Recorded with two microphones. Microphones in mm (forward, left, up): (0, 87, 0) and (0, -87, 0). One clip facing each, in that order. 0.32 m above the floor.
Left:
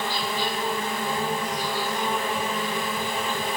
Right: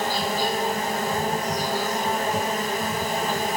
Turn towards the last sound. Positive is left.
turn(degrees=-40)  # may be behind; listen again after turning